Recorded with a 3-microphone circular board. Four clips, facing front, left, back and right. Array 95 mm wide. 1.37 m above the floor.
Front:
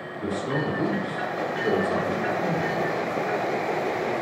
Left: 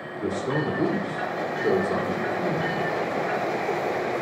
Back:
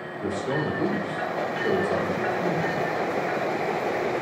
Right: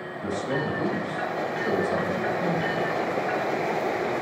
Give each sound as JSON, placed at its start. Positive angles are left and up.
{"t": 0.2, "sound": "a man speaking", "azimuth_deg": 65, "distance_m": 4.0}